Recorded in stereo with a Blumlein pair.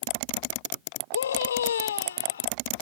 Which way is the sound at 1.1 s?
65° left.